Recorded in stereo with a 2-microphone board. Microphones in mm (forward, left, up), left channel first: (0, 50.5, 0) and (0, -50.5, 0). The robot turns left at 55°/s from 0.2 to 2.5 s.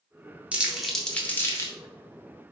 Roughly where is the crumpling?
Centre.